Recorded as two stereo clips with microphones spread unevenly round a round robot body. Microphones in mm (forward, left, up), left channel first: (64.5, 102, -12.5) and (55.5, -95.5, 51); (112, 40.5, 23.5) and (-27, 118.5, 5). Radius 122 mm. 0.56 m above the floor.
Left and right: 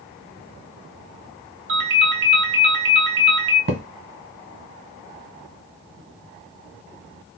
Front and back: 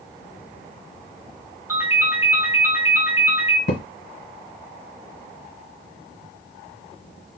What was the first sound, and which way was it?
A ringtone, 140° right.